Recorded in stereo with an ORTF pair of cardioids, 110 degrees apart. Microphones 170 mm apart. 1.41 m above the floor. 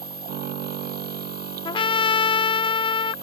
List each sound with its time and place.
0.0 s a machine running: 65° right
1.6 s a trumpet: 30° left